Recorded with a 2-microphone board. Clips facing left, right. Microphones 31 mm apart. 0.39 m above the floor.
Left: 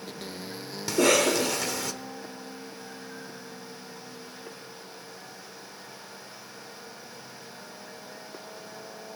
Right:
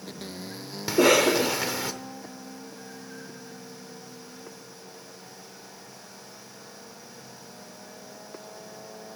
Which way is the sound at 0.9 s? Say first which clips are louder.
Right 3 dB; 20° right (ahead or behind).